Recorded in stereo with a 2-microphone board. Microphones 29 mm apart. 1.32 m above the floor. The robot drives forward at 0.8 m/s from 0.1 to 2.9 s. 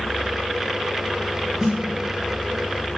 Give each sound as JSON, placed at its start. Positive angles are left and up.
{"t": 1.6, "sound": "a snare drum", "side_deg": -15, "distance_m": 4.0}